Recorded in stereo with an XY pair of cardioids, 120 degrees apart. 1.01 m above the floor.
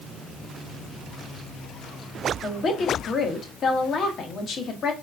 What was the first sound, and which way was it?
A woman speaking, 45° left.